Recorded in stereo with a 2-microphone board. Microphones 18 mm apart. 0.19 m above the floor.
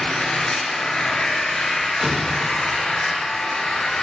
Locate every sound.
0.0 s an engine running: 50° left (ahead or behind), 4.5 m
2.0 s an explosion: 40° right (ahead or behind), 3.5 m